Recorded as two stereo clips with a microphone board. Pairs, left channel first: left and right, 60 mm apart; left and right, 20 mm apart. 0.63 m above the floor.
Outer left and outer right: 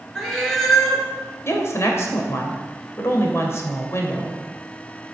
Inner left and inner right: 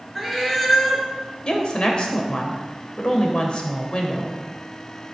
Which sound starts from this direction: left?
A woman speaking, at 1.4 s.